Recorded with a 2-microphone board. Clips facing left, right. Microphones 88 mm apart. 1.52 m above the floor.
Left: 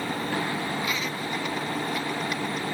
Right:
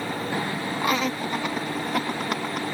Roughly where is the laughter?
Right.